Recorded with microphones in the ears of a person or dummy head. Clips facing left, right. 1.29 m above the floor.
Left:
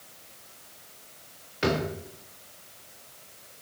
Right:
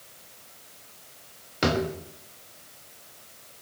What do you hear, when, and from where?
1.6 s a drawer: 65° right (ahead or behind), 1.2 m